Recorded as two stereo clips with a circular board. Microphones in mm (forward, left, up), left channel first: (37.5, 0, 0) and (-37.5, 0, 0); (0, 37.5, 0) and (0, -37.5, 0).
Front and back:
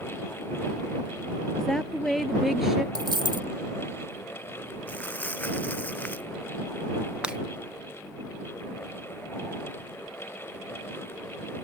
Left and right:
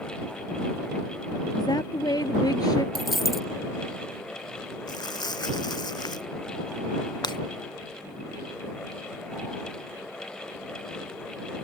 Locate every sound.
1.6 s a woman speaking: 85° left; by 2.9 s 95° left
3.0 s a dropped coin: straight behind
4.9 s crumpling: 70° left
7.2 s breaking glass: 105° left